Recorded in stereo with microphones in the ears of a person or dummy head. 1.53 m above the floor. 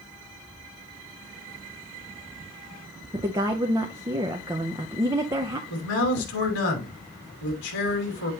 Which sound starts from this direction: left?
A man speaking, at 5.7 s.